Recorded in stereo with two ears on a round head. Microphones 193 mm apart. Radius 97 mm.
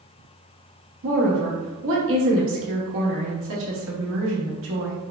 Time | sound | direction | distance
1.0 | a woman speaking | 60° right (ahead or behind) | 0.8 m